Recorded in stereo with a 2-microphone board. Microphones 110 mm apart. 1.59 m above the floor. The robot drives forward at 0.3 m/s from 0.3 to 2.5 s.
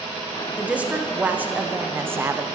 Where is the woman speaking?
10° right (ahead or behind), 1.0 m; by 2.5 s 20° right (ahead or behind), 0.5 m.